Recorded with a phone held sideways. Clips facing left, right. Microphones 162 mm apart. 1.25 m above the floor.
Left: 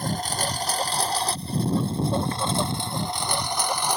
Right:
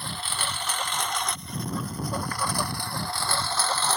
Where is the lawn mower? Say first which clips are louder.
Left 7 dB; 40° left (ahead or behind); by 4.0 s 15° left (ahead or behind).